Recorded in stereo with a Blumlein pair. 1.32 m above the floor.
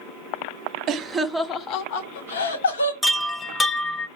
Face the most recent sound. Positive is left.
turn(degrees=5)